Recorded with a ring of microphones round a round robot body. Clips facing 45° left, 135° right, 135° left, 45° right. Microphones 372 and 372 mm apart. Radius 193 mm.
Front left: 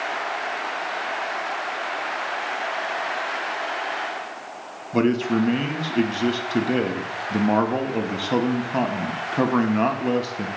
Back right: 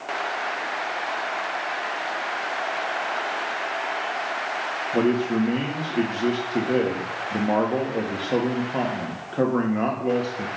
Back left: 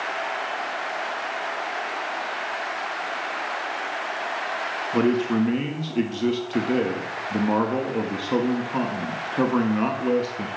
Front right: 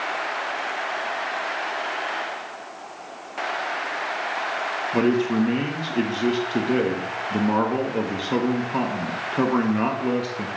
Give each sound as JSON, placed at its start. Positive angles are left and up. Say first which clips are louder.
{"t": 4.9, "sound": "a man speaking", "louder": "front left 1 dB, front right 1 dB", "azimuth_deg": 45, "distance_m": 1.1}